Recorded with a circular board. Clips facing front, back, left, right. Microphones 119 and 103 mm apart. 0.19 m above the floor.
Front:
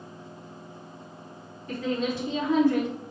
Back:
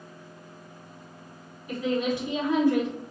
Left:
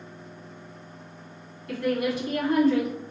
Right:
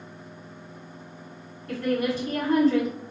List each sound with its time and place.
1.7 s a woman speaking: 115° right, 1.3 m